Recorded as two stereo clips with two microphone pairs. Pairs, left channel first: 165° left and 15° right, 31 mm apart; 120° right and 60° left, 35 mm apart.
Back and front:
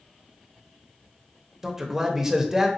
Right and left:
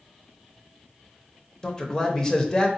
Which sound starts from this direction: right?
A man speaking, at 1.6 s.